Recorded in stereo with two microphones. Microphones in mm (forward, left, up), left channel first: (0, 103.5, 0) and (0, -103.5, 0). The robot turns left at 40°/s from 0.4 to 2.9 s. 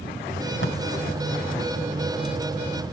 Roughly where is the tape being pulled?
Left.